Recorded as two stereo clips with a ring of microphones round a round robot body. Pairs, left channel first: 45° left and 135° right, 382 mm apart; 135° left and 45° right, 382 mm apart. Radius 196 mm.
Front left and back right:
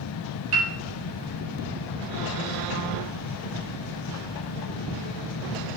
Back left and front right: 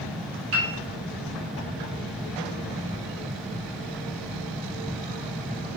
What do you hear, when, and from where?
0.5 s a piano: 105° right, 0.5 m